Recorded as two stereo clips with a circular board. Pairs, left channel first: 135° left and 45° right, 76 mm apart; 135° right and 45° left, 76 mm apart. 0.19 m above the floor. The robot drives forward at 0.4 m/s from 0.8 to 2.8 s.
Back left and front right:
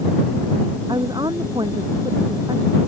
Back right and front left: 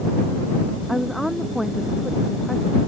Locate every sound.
0.9 s a woman speaking: 45° right